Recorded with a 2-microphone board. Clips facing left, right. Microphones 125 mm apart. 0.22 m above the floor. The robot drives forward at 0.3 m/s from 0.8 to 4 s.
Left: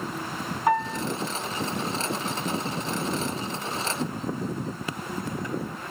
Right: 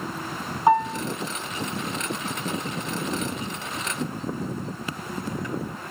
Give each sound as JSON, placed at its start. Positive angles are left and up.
{"t": 0.7, "sound": "a piano", "side_deg": -25, "distance_m": 2.0}